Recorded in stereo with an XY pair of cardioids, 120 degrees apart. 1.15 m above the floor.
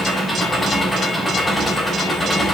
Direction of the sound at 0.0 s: 10° left.